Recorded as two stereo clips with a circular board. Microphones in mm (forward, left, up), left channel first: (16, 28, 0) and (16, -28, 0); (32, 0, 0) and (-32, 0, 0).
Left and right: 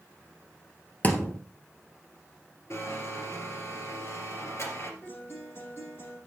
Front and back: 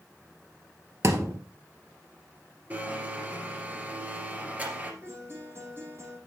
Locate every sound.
1.0 s a thud: 145° left, 1.5 m
2.7 s a blender: 120° left, 3 m
5.0 s a guitar: 135° left, 7.5 m